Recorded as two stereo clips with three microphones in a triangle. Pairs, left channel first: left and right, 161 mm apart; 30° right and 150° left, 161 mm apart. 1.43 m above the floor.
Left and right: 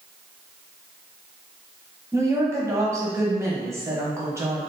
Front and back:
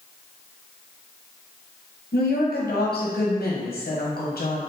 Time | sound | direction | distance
2.1 | a woman speaking | 15° right | 0.9 m